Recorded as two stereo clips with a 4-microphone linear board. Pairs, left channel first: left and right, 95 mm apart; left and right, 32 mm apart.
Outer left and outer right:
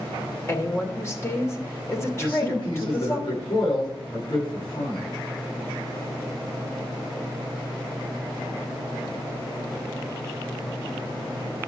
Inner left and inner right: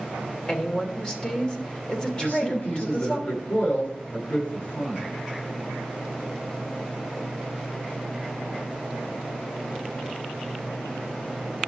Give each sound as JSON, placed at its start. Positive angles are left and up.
{"t": 0.5, "sound": "a woman speaking", "side_deg": 30, "distance_m": 3.0}
{"t": 2.2, "sound": "a man speaking", "side_deg": 60, "distance_m": 8.5}